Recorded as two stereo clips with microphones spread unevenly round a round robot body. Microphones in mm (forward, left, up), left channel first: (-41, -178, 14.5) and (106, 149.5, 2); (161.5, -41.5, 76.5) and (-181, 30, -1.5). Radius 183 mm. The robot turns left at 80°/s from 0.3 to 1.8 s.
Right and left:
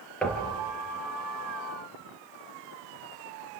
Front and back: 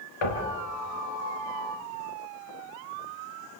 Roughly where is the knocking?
Ahead right.